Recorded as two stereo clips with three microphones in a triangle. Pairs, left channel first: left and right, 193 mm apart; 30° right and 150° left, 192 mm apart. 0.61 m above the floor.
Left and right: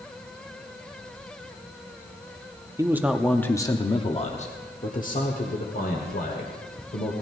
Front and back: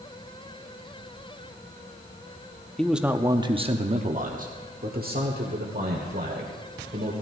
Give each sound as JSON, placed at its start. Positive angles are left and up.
{"t": 2.8, "sound": "a man speaking", "azimuth_deg": -110, "distance_m": 0.7}